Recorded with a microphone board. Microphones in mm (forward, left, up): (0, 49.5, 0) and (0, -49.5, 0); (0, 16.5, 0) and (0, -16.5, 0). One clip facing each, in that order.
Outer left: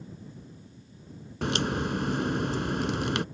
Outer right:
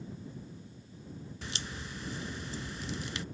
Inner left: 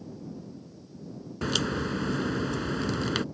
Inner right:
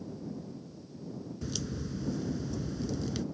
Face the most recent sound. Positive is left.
turn(degrees=60)  # may be behind; listen again after turning